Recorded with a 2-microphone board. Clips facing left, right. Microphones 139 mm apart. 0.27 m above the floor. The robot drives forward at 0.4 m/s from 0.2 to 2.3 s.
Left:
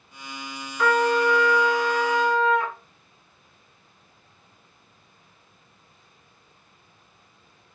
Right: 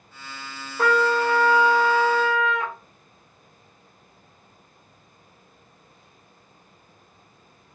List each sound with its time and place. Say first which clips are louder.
0.8 s a trumpet: even; 45° right (ahead or behind), 0.7 m; by 2.7 s 25° right (ahead or behind), 1.2 m